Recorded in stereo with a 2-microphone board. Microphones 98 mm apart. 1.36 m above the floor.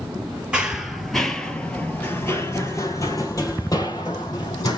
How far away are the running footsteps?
About 1.5 m.